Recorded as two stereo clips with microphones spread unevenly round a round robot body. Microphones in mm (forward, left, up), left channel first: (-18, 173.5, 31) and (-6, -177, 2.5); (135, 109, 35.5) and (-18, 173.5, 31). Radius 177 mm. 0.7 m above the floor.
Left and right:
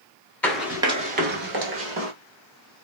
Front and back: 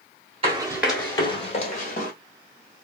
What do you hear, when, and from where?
0.4 s running footsteps: 165° left, 0.7 m; by 2.1 s 35° right, 1.1 m